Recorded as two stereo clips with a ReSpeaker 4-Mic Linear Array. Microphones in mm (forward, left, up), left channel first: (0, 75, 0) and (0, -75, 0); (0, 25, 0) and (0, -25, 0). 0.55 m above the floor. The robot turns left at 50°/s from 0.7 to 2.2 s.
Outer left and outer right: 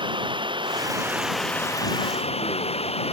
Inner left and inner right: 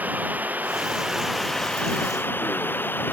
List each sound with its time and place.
0.0 s running water: 145° right; by 3.1 s 140° left